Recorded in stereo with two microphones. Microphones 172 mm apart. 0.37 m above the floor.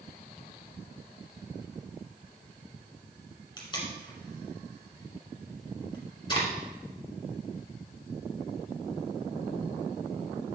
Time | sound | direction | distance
3.6 | tape being pulled | 25° left (ahead or behind) | 1.9 m